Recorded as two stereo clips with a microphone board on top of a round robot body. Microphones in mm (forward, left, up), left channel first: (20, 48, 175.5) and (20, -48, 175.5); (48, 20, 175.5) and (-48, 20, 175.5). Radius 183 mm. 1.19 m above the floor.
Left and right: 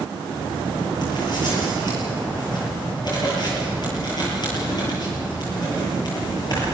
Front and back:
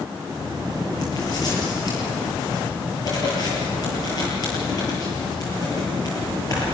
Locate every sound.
0.3 s writing: 45° left, 8 m